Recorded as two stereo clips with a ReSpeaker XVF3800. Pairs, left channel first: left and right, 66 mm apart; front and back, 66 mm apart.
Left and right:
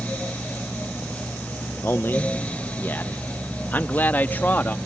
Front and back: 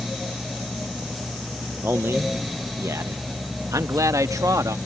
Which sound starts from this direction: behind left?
A man speaking, at 1.8 s.